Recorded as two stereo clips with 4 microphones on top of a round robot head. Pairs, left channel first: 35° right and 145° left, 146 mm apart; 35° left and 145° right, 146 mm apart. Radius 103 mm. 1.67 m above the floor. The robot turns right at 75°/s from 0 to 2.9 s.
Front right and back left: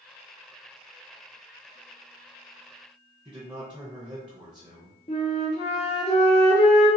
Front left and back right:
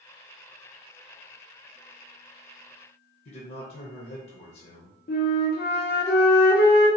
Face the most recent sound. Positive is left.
turn(degrees=10)